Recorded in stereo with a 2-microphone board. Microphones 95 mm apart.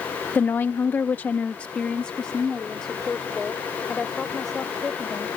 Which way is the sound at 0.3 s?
20° left (ahead or behind).